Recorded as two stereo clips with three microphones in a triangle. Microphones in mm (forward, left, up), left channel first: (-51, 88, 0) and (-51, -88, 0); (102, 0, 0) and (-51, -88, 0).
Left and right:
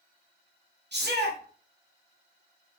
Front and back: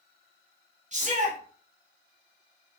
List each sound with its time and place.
0.9 s a shout: 100° right, 1.2 m